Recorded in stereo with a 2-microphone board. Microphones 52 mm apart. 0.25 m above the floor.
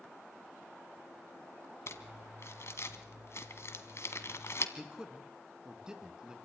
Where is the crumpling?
55° left (ahead or behind), 1.5 m.